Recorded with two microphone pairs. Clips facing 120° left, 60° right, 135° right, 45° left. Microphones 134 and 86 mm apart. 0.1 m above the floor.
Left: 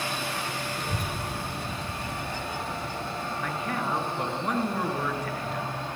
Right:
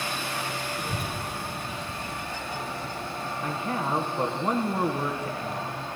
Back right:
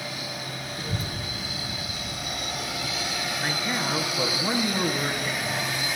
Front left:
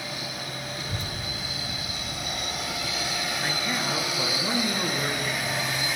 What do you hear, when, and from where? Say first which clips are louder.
0.8 s a child speaking: even, back right 2 dB; 125° right, 1.5 m; by 3.2 s 115° left, 3 m
3.4 s a man speaking: right 2 dB, back right 2 dB; 75° right, 1.5 m